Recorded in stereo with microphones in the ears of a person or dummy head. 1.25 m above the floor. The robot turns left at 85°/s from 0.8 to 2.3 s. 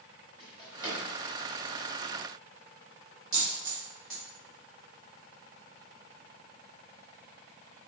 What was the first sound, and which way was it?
A drawer, 25° left (ahead or behind).